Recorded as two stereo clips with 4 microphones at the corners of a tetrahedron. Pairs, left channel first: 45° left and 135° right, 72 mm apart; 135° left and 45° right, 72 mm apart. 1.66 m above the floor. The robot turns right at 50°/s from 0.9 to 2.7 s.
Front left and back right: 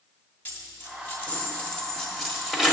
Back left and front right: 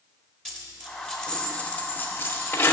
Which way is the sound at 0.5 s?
60° left.